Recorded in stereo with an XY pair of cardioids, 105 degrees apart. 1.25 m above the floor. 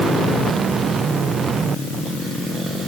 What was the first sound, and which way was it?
Only background noise.